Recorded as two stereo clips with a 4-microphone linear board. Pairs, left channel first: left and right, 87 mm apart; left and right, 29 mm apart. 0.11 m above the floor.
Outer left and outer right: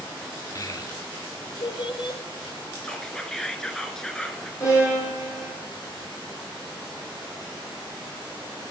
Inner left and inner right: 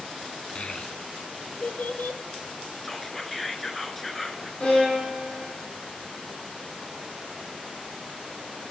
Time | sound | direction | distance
0.6 | a child speaking | 35° left (ahead or behind) | 0.9 m
2.8 | whispering | 5° left (ahead or behind) | 1.1 m
4.6 | a violin | 35° left (ahead or behind) | 5.5 m